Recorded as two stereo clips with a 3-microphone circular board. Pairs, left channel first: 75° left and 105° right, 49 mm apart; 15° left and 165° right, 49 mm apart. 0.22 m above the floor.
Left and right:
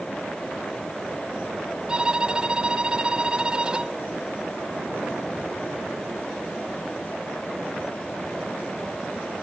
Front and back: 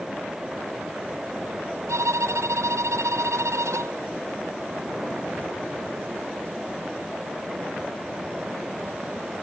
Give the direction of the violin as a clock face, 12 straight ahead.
6 o'clock.